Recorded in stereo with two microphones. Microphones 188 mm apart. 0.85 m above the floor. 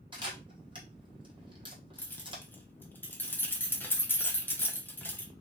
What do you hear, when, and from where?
0.1 s a camera shutter: 25° right (ahead or behind), 1.1 m
2.0 s keys jangling: 10° left (ahead or behind), 0.7 m